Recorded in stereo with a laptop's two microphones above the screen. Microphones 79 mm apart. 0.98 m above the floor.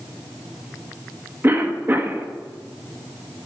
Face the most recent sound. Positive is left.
turn(degrees=-25)  # may be behind; listen again after turning